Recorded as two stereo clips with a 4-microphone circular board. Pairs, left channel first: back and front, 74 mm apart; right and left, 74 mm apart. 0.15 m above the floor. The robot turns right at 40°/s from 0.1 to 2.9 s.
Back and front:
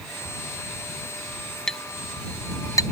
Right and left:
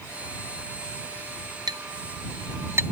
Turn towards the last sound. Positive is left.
turn(degrees=150)